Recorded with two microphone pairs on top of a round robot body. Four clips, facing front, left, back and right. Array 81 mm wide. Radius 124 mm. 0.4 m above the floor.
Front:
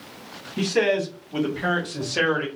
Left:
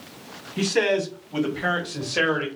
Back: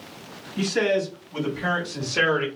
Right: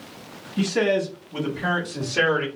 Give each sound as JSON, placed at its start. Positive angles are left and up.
{"t": 0.6, "sound": "a man speaking", "azimuth_deg": 70, "distance_m": 2.5}